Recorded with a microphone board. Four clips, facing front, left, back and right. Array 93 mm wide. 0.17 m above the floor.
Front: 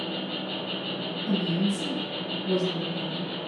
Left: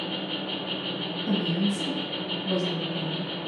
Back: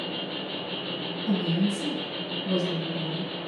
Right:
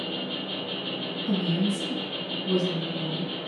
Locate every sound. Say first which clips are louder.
0.0 s an insect: left 1 dB, front 1 dB; 95° left, 2 m
1.3 s a woman speaking: even, back 1 dB; 115° left, 2.0 m